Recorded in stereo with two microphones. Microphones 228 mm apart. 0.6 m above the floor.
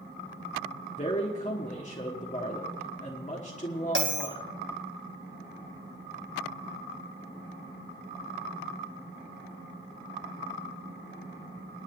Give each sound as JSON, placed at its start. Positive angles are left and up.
{"t": 1.0, "sound": "a man speaking", "side_deg": 35, "distance_m": 1.4}
{"t": 4.0, "sound": "a bell", "side_deg": -65, "distance_m": 3.0}